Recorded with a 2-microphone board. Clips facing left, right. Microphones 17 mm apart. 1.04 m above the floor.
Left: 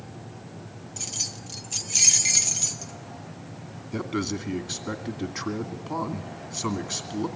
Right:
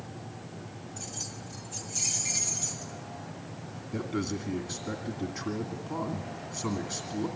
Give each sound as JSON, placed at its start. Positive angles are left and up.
{"t": 1.0, "sound": "keys jangling", "side_deg": 55, "distance_m": 0.9}
{"t": 3.9, "sound": "a man speaking", "side_deg": 35, "distance_m": 2.0}